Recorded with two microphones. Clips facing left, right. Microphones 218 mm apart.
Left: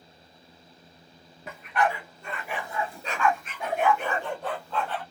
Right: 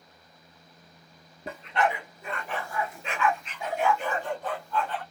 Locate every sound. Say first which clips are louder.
1.5 s a dog barking: even; 35° right (ahead or behind), 1.0 m; by 5.0 s 80° left, 1.9 m